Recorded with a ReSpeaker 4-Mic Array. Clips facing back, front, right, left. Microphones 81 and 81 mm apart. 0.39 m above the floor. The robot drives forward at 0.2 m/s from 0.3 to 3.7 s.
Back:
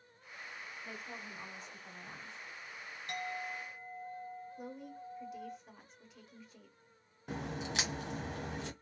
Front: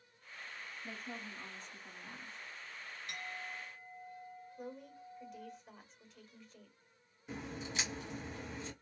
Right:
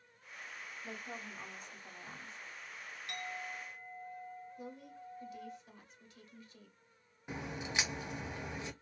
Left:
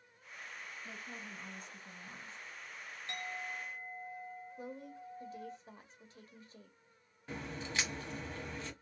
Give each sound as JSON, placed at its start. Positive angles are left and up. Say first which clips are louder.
{"t": 0.8, "sound": "a woman speaking", "louder": "front 2 dB, right 5 dB", "azimuth_deg": -100, "distance_m": 1.4}
{"t": 3.1, "sound": "a clink", "louder": "back 7 dB, left 1 dB", "azimuth_deg": 145, "distance_m": 1.6}
{"t": 4.6, "sound": "a woman speaking", "louder": "back 2 dB, left 2 dB", "azimuth_deg": 100, "distance_m": 1.1}
{"t": 7.3, "sound": "a crack", "louder": "back 4 dB, right 1 dB", "azimuth_deg": -165, "distance_m": 0.8}